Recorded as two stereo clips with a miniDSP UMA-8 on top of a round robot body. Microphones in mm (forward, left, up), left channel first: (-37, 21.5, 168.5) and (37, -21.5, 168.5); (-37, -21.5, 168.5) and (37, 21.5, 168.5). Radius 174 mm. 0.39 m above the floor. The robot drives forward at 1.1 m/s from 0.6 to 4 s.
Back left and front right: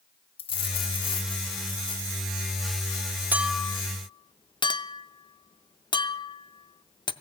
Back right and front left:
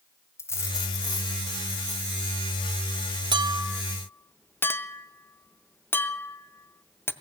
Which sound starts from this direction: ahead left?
A clink, at 3.3 s.